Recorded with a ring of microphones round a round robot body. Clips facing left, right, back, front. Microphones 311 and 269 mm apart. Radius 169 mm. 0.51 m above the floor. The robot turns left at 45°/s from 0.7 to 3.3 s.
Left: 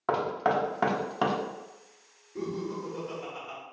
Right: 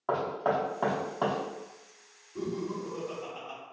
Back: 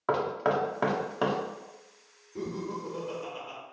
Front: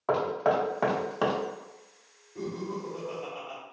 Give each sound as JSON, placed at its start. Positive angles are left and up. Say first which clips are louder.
{"t": 0.1, "sound": "knocking", "louder": "left 1 dB, front 1 dB", "azimuth_deg": 120, "distance_m": 0.7}
{"t": 2.4, "sound": "laughter", "louder": "even, even", "azimuth_deg": 175, "distance_m": 1.1}